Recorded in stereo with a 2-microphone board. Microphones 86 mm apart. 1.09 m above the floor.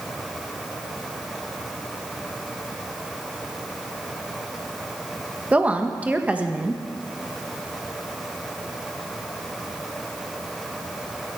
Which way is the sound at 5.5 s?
15° right (ahead or behind).